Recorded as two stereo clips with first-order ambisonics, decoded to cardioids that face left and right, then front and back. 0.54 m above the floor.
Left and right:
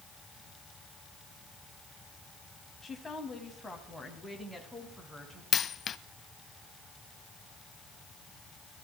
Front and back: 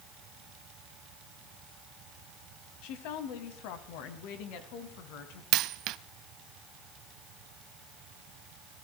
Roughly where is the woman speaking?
Ahead.